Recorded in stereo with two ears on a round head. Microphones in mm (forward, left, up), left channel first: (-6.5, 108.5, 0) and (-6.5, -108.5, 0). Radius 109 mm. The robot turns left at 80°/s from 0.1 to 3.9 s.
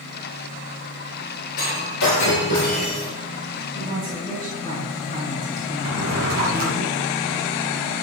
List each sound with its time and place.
1.6 s breaking glass: 130° left, 8.5 m; by 3.1 s 10° left, 8.5 m
3.8 s a woman speaking: 25° right (ahead or behind), 7.5 m; by 6.8 s 35° right (ahead or behind), 7.5 m
5.8 s a drawer: 65° right (ahead or behind), 5.5 m